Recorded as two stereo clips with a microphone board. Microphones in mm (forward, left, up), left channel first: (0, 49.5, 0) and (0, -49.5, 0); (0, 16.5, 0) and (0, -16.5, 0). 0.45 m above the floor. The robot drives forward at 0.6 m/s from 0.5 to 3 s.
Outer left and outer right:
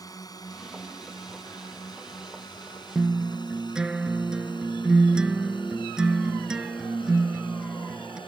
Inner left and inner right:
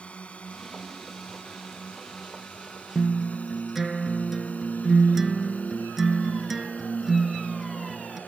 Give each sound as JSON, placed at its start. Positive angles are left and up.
{"t": 0.0, "sound": "a drone", "side_deg": 40}
{"t": 3.0, "sound": "a guitar", "side_deg": -10}